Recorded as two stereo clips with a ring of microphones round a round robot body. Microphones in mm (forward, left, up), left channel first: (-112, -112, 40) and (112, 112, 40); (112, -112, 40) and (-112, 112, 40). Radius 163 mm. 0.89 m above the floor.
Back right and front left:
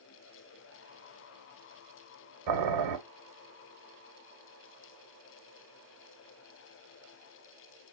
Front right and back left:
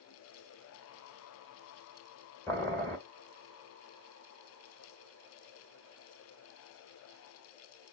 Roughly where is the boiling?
Ahead left.